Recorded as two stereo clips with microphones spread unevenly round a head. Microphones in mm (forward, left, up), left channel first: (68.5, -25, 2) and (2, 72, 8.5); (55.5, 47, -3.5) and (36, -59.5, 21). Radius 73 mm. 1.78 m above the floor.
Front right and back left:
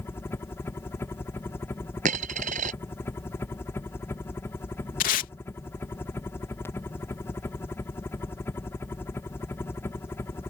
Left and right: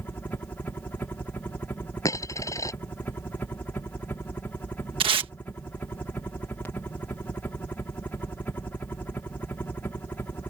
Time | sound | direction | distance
0.0 | a helicopter | 10° left | ?
2.0 | a dropped coin | 155° left | ?
5.0 | tape being pulled | 65° right | ?